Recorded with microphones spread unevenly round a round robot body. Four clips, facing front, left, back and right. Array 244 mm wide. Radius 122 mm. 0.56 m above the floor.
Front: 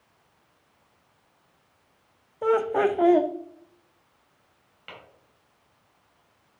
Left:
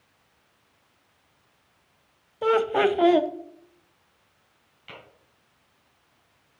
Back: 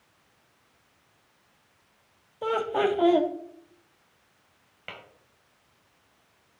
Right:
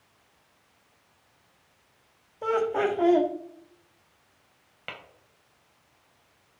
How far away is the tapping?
About 2.5 m.